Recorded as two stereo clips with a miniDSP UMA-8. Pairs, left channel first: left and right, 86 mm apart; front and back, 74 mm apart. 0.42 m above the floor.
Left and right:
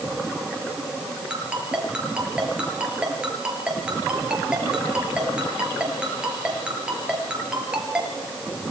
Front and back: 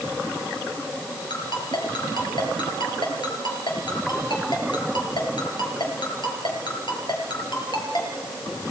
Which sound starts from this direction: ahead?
A ringtone, at 1.3 s.